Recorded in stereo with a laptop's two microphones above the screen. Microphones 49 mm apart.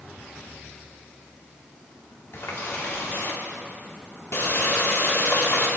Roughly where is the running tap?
Left.